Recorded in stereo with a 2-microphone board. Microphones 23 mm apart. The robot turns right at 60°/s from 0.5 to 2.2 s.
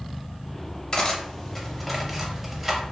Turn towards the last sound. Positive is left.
turn(degrees=-15)  # may be behind; listen again after turning